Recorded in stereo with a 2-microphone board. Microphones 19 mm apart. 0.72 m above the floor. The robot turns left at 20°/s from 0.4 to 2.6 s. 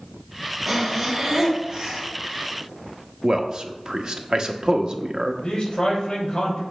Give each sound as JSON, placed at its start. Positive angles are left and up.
{"t": 0.7, "sound": "breathing", "side_deg": -5, "distance_m": 1.8}
{"t": 3.2, "sound": "a man speaking", "side_deg": -45, "distance_m": 0.9}
{"t": 5.4, "sound": "a man speaking", "side_deg": 40, "distance_m": 3.5}